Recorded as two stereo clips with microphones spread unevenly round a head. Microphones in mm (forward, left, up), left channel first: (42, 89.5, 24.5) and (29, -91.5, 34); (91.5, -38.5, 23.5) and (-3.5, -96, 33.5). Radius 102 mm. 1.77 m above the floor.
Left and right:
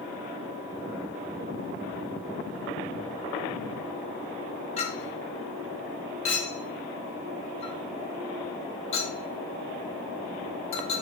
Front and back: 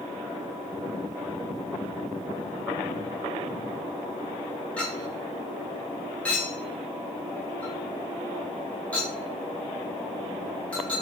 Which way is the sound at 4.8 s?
115° left.